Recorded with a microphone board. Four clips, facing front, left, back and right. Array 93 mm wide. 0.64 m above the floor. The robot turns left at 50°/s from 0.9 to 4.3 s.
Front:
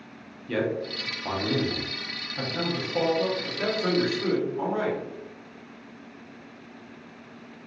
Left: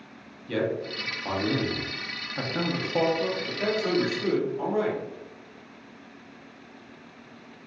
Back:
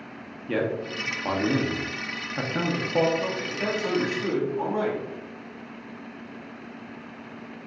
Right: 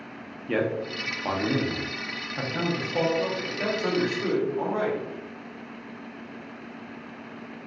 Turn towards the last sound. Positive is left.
turn(degrees=-60)